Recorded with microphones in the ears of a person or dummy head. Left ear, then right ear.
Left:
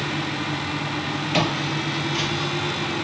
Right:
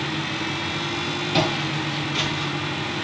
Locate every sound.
1.3 s footsteps: 20° left (ahead or behind), 2.0 m; by 2.5 s 5° right (ahead or behind), 2.5 m